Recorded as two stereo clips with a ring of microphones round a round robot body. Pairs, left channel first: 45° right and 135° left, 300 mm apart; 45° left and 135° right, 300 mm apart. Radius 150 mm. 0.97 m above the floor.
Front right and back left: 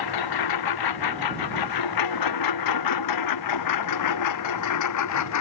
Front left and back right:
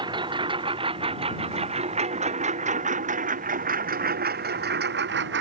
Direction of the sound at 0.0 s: 60° right.